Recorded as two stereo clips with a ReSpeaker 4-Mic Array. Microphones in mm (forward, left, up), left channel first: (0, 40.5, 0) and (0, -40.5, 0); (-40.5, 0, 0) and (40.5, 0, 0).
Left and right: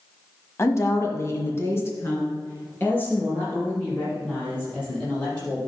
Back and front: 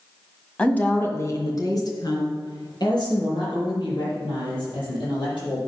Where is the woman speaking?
110° left, 1.5 m; by 5.6 s 160° left, 8 m.